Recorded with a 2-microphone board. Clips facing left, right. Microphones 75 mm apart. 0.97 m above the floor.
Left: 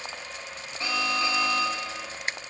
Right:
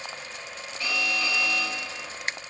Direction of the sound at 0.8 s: 30° left (ahead or behind).